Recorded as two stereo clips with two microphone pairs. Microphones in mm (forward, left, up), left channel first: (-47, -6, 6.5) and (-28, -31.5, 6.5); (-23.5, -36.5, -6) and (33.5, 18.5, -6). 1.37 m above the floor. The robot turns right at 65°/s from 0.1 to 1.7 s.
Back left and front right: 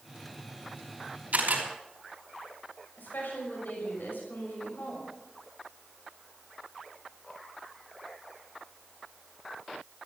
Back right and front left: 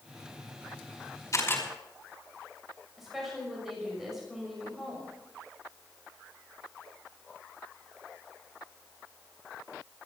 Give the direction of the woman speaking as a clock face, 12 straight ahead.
8 o'clock.